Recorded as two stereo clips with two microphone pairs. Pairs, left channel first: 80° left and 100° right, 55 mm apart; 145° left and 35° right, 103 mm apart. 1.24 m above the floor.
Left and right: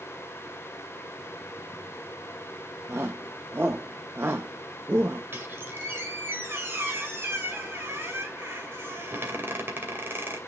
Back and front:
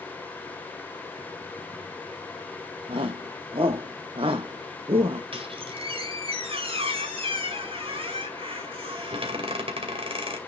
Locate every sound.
2.9 s a shout: 60° right, 0.7 m
5.3 s a squeak: 55° right, 2.5 m